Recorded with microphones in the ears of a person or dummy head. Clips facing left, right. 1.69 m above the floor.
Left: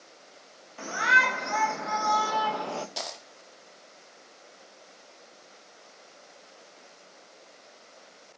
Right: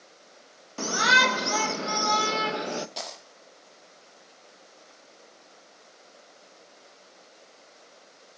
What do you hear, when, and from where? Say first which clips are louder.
0.8 s a shout: right 4 dB; 65° right (ahead or behind), 1.8 m; by 2.9 s 25° right (ahead or behind), 1.4 m
3.0 s a dropped coin: left 1 dB; centre (ahead or behind), 2.0 m